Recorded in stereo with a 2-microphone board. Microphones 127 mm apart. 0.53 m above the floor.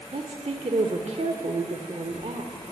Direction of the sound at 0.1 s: 60° right (ahead or behind).